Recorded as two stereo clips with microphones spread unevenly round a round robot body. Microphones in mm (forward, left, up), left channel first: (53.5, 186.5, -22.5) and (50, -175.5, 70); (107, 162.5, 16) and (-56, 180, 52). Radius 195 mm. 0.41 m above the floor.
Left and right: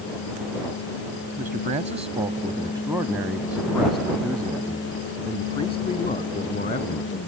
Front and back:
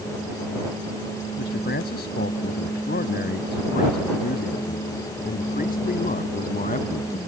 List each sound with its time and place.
1.4 s a man speaking: 15° right; by 7.2 s 30° left